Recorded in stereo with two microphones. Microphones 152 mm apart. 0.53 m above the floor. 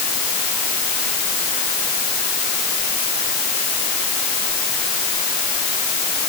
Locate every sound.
Only background noise.